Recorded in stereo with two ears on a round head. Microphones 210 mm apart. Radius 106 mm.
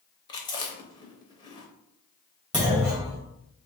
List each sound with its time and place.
0.3 s chewing: 20° left (ahead or behind), 0.6 m
2.5 s a clunk: centre (ahead or behind), 1.7 m